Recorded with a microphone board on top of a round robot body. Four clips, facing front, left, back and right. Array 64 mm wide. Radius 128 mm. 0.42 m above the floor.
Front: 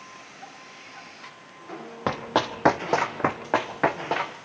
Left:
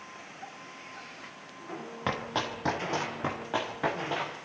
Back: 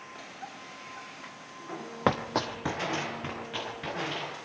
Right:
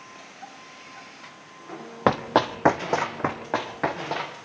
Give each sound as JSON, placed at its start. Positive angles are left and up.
{"t": 2.1, "sound": "running footsteps", "azimuth_deg": -100, "distance_m": 1.0}